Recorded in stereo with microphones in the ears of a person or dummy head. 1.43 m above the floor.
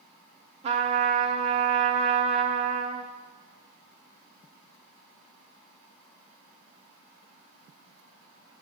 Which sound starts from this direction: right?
A trumpet, at 0.6 s.